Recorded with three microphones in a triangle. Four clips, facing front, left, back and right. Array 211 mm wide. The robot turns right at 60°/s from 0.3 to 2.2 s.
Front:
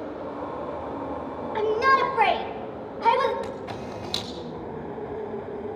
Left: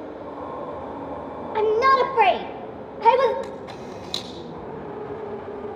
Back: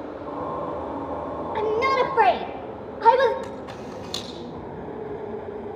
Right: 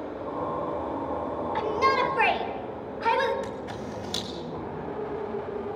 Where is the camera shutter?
20° right, 4.5 m.